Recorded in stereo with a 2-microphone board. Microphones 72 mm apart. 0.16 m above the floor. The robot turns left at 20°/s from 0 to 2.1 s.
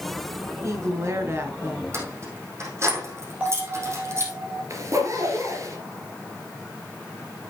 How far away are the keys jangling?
About 4 m.